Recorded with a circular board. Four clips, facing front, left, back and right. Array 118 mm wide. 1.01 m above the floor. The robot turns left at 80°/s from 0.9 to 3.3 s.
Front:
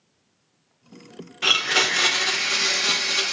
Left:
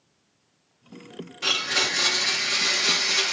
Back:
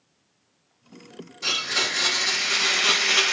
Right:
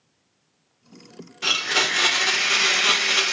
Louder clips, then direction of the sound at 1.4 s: Right 3 dB, front 6 dB; 5° right.